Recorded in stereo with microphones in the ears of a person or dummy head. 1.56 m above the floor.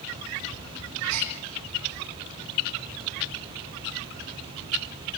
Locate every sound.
1.1 s a gasp: 85° right, 6 m